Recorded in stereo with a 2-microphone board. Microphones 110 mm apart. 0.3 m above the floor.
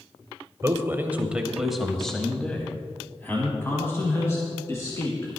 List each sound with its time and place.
0.6 s a man speaking: 25° right (ahead or behind), 1.1 m; by 5.3 s 25° left (ahead or behind), 3 m